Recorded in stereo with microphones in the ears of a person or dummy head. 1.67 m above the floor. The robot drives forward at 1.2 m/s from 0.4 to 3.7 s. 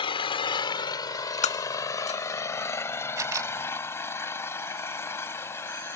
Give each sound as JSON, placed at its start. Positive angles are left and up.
{"t": 0.0, "sound": "an engine running", "side_deg": 25}
{"t": 1.4, "sound": "breaking glass", "side_deg": 35}
{"t": 3.2, "sound": "a camera shutter", "side_deg": -15}